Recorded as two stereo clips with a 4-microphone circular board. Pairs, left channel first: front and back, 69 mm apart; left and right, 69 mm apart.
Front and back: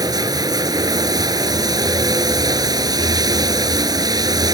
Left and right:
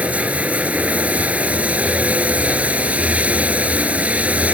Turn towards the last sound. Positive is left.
turn(degrees=-160)